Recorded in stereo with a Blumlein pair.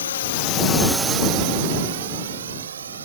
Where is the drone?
65° left; by 3.1 s 70° right.